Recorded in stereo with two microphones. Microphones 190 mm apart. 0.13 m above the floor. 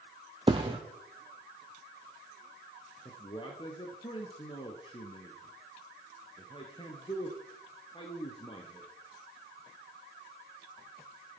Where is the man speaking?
25° left (ahead or behind), 2.5 m.